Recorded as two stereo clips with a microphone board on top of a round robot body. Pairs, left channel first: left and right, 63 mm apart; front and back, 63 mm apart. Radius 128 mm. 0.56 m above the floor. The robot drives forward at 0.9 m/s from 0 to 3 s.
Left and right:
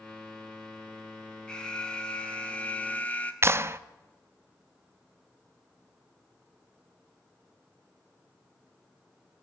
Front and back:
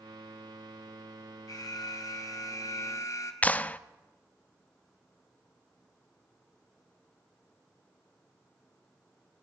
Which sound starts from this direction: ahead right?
A clap, at 3.4 s.